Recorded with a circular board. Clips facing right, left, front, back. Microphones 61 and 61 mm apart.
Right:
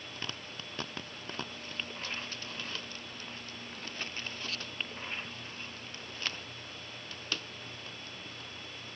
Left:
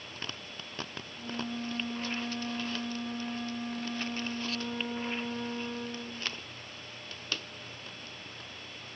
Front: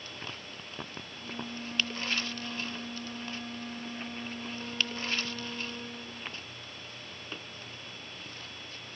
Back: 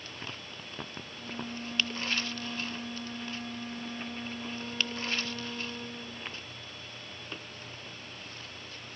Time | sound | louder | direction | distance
1.2 | a flute | left 9 dB, back 1 dB | 90° left | ?